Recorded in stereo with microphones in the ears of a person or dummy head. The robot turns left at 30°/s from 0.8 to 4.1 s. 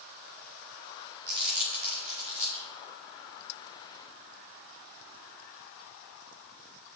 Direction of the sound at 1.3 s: 65° right (ahead or behind).